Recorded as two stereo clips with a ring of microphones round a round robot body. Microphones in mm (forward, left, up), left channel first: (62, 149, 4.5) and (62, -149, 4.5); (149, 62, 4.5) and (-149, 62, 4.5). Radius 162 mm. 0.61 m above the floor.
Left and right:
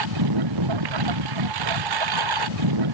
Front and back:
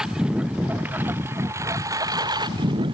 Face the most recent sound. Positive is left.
turn(degrees=-105)